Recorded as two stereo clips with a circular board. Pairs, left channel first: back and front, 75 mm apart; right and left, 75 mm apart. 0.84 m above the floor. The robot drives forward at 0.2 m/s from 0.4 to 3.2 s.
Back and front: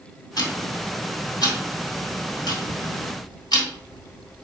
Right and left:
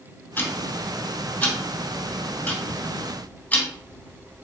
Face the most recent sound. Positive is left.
turn(degrees=-160)